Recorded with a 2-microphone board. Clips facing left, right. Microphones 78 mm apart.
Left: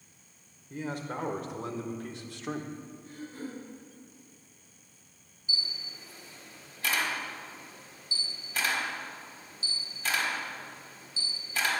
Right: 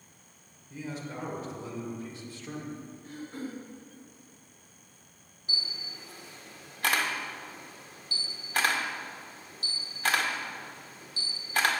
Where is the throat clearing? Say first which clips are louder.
Right 3 dB; 75° right (ahead or behind), 3 m.